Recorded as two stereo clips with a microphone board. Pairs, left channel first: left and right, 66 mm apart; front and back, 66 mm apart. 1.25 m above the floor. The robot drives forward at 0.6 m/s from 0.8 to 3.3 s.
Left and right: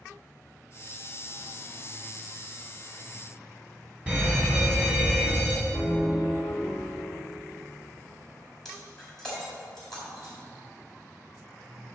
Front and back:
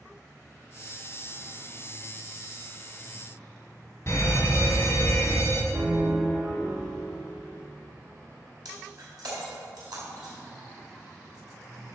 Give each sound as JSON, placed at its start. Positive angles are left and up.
{"t": 4.1, "sound": "a fire alarm", "azimuth_deg": -30, "distance_m": 2.0}
{"t": 5.7, "sound": "a piano", "azimuth_deg": -170, "distance_m": 2.5}
{"t": 8.7, "sound": "breaking glass", "azimuth_deg": 170, "distance_m": 4.0}